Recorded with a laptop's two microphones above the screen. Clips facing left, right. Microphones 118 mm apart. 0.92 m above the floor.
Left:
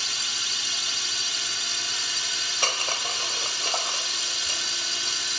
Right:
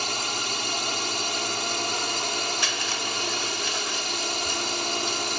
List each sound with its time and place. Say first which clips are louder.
0.0 s a drone: right 9 dB; 55° right (ahead or behind)
2.6 s crushing: even; 50° left (ahead or behind)